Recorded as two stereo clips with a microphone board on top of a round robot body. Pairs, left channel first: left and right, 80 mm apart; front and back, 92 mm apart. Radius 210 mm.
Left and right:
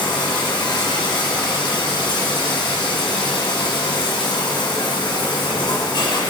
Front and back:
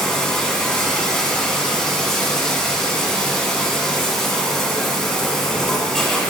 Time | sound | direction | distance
0.0 | running water | 90° left | 1.5 m